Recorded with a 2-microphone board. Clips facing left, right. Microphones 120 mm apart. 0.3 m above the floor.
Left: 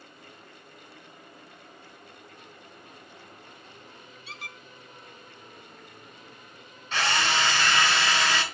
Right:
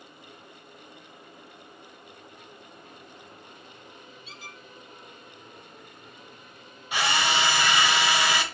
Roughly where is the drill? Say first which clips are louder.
Right 1 dB; centre.